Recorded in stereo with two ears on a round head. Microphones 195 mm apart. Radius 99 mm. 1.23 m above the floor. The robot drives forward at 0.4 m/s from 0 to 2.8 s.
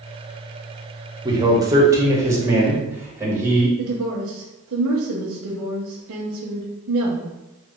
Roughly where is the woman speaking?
Right.